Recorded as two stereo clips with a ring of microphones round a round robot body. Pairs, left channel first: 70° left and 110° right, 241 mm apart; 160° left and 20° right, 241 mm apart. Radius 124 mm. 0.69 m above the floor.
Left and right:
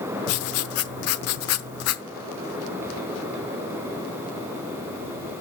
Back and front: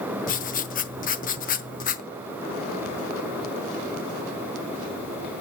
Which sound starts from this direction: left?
Writing, at 0.3 s.